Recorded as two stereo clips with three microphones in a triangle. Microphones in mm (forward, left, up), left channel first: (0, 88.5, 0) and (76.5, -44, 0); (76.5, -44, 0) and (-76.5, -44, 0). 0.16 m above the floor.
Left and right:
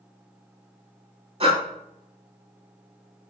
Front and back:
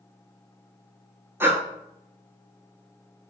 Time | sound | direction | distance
1.4 | breathing | 105° right | 0.5 m